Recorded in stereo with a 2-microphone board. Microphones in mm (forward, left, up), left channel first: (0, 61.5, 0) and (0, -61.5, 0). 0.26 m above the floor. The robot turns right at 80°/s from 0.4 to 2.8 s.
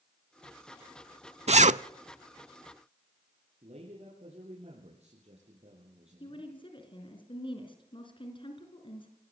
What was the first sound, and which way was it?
A zipper, 60° right (ahead or behind).